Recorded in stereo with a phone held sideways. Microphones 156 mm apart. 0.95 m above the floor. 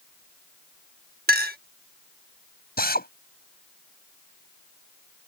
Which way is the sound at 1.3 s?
80° right.